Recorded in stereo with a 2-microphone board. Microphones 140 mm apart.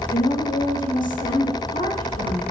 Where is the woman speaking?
75° left (ahead or behind), 5 m.